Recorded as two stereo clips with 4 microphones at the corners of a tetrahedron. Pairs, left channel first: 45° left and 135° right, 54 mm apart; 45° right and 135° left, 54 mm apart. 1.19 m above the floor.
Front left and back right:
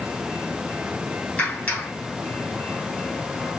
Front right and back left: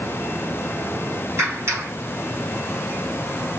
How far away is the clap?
About 6.5 m.